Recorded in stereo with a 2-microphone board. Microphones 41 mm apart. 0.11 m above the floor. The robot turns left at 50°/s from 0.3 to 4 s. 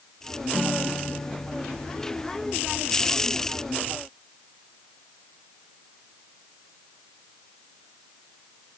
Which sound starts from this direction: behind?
A guitar, at 0.5 s.